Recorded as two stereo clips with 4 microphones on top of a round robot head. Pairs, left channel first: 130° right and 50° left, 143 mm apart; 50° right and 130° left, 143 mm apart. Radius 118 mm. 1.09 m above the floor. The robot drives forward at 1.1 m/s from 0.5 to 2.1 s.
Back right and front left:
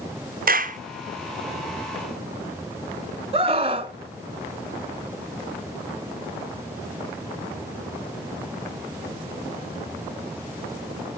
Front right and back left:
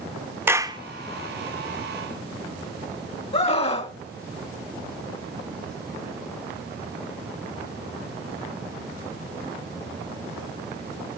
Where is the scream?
Straight ahead, 1.5 m.